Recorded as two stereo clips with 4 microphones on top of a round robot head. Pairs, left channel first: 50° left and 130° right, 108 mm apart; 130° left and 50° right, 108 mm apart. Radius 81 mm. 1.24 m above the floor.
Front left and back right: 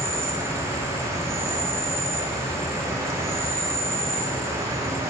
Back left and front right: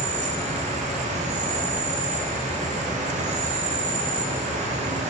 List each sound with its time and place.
0.0 s an insect: 65° right, 0.9 m